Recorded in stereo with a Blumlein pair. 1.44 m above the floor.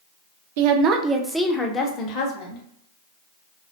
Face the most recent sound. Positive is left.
turn(degrees=40)